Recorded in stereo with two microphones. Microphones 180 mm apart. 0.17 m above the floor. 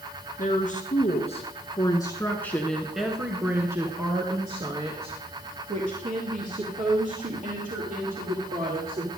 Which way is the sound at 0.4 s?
50° left (ahead or behind).